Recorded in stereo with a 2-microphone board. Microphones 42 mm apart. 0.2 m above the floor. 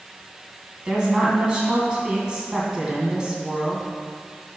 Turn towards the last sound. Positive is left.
turn(degrees=-20)  # may be behind; listen again after turning